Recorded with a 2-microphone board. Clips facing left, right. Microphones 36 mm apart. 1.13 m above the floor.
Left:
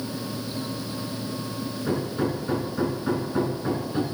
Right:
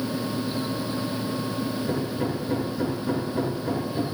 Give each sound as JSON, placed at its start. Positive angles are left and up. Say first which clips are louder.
{"t": 1.9, "sound": "hammering", "louder": "left 1 dB", "side_deg": 55, "distance_m": 5.5}